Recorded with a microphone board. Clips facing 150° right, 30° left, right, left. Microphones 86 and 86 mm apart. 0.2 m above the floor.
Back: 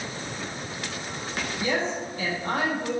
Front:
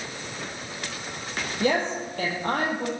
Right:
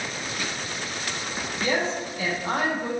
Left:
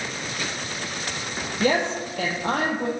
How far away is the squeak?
I don't hear a squeak.